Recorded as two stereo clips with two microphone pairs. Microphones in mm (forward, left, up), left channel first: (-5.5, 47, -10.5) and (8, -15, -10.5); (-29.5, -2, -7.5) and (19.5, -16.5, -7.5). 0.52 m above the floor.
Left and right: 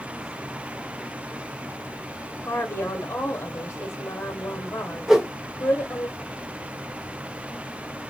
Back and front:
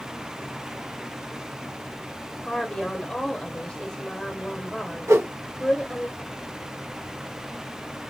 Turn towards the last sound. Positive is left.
turn(degrees=5)